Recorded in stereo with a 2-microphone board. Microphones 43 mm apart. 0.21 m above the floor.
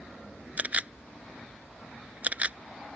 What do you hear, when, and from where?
0.6 s a camera shutter: 40° right (ahead or behind)